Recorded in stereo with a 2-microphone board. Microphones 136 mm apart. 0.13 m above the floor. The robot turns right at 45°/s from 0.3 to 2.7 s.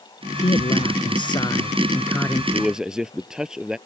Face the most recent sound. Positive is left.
turn(degrees=-5)  # may be behind; listen again after turning